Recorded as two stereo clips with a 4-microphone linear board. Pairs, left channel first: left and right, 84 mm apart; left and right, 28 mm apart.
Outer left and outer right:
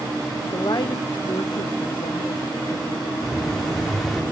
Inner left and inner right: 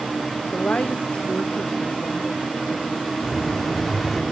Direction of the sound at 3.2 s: Centre (ahead or behind).